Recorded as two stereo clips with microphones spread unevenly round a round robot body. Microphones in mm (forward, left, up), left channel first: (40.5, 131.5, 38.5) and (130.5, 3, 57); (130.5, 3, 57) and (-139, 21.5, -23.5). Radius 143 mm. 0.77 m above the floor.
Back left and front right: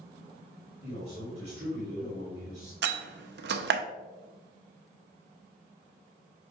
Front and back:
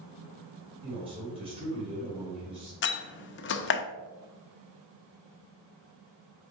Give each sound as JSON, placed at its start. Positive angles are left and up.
{"t": 0.8, "sound": "a man speaking", "azimuth_deg": -115, "distance_m": 3.5}
{"t": 2.8, "sound": "a door slam", "azimuth_deg": -55, "distance_m": 0.7}